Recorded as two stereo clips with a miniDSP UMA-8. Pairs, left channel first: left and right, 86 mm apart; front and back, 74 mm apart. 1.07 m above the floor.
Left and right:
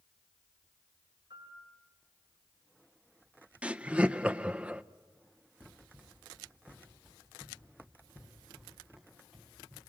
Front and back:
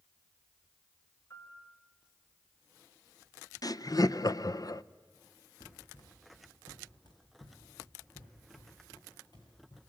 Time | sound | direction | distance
1.3 | a piano | 60° right | 4 m
3.6 | laughter | 20° right | 0.5 m
5.6 | running footsteps | 20° right | 3 m